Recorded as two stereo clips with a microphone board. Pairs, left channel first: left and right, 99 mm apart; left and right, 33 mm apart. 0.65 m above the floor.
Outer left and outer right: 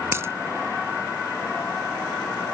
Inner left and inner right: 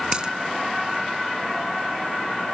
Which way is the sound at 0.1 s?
25° right (ahead or behind).